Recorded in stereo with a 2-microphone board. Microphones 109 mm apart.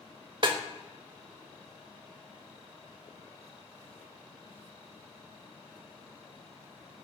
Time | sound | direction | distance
0.4 | a snare drum | 45° right (ahead or behind) | 0.6 m